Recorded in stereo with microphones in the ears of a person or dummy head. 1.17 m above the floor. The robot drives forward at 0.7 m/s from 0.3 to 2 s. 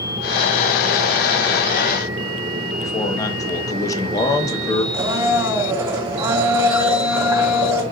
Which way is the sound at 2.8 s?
25° left (ahead or behind).